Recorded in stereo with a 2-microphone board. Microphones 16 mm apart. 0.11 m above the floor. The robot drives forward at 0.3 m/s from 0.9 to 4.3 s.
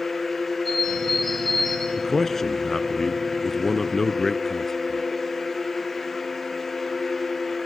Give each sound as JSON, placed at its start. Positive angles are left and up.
{"t": 0.7, "sound": "a bird", "side_deg": 15, "distance_m": 5.0}
{"t": 2.0, "sound": "a man speaking", "side_deg": 20, "distance_m": 1.1}